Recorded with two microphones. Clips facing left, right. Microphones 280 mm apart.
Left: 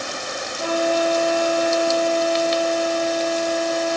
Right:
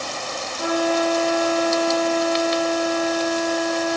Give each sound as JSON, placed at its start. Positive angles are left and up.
{"t": 0.6, "sound": "a flute", "side_deg": -65, "distance_m": 1.1}